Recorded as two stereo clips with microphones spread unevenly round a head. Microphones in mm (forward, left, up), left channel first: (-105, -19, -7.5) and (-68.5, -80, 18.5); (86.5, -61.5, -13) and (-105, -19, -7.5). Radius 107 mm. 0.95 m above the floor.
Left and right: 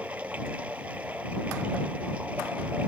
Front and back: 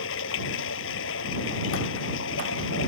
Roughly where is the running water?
Ahead left.